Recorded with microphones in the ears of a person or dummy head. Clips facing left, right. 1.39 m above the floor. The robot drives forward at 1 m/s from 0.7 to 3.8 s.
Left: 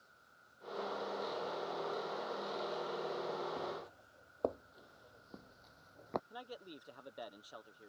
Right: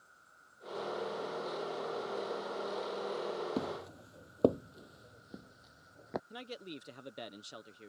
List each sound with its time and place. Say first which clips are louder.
0.0 s an insect: right 1 dB; 55° right (ahead or behind); by 7.9 s 50° right (ahead or behind)
3.6 s footsteps: right 5 dB; 60° right (ahead or behind); by 6.2 s 15° right (ahead or behind)
6.3 s a man speaking: right 4 dB; 35° right (ahead or behind)